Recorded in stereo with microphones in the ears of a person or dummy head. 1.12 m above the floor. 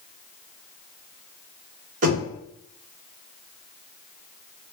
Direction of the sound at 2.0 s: 40° right (ahead or behind).